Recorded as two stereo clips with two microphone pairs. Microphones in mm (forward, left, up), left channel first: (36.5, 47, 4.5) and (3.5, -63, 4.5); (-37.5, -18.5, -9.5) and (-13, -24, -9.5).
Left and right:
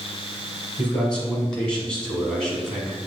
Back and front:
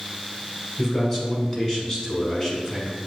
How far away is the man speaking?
About 1.4 m.